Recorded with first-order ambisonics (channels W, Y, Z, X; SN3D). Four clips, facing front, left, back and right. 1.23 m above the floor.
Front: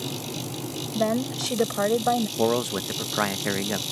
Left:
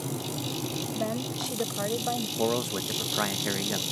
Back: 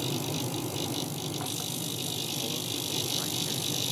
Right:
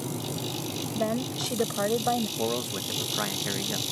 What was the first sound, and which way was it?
A woman speaking, 10° right.